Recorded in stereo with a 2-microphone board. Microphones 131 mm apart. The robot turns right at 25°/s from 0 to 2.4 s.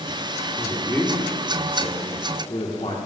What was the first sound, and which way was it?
A man speaking, 10° left (ahead or behind).